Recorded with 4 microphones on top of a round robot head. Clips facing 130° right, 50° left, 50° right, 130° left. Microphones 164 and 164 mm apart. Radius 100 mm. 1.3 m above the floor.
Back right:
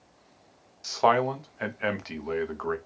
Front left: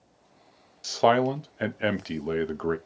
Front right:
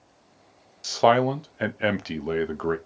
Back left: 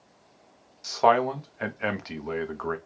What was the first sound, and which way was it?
A man speaking, straight ahead.